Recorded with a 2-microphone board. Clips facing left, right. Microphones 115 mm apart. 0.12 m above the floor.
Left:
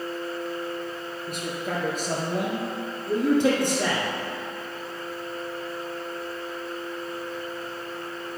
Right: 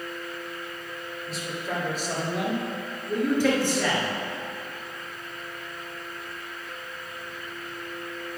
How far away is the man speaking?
About 2.5 m.